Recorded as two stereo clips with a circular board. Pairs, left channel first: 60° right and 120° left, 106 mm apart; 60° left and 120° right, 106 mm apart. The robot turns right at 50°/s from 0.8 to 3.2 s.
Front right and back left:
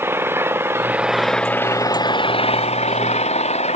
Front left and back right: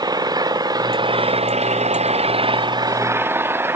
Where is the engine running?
170° right; by 3.8 s 50° right.